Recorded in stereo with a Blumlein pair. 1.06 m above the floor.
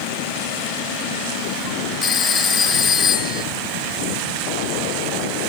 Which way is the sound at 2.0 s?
20° left.